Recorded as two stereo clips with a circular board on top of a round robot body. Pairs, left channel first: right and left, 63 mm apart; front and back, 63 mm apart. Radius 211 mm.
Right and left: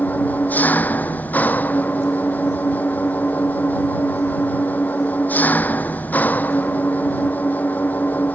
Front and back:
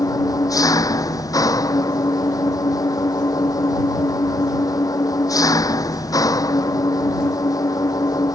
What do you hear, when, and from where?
0.0 s an engine running: 25° right